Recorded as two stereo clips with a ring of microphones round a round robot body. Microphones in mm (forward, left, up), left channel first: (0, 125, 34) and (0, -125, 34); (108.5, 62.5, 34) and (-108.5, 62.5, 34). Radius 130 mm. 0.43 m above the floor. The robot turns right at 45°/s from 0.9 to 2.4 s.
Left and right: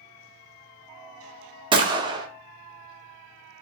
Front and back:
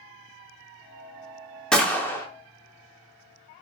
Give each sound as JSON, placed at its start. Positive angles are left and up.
{"t": 1.7, "sound": "a gunshot", "azimuth_deg": -80, "distance_m": 0.8}